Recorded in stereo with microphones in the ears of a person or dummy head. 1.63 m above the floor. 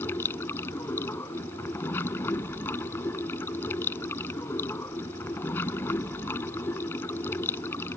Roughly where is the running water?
Centre.